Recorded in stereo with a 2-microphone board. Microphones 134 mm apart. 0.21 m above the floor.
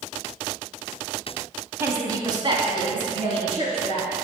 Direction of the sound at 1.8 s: 20° right (ahead or behind).